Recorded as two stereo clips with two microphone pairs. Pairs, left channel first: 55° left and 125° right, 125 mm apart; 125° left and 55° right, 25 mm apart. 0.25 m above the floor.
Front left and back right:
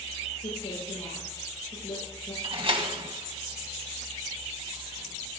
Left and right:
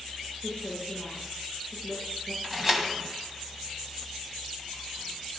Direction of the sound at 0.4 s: 30° left.